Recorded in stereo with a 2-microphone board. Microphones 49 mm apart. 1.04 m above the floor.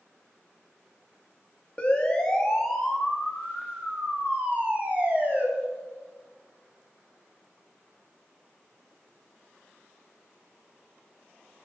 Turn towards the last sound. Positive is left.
turn(degrees=-35)  # may be behind; listen again after turning